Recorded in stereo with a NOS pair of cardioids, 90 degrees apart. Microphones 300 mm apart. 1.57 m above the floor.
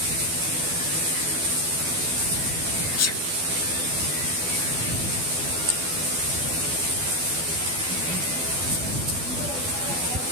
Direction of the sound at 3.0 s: 55° left.